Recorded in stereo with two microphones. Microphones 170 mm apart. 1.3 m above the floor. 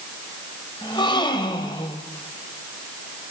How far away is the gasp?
About 2.5 m.